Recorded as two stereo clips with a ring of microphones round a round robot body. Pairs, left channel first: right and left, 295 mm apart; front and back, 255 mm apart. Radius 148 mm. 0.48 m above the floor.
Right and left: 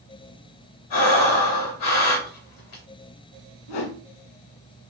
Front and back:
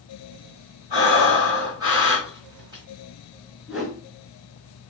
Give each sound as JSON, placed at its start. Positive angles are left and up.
{"t": 0.9, "sound": "breathing", "azimuth_deg": -105, "distance_m": 1.9}
{"t": 3.7, "sound": "a whoosh", "azimuth_deg": -90, "distance_m": 1.0}